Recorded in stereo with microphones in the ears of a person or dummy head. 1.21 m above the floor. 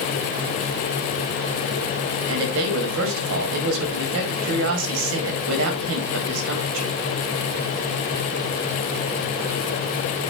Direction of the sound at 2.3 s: 70° right (ahead or behind).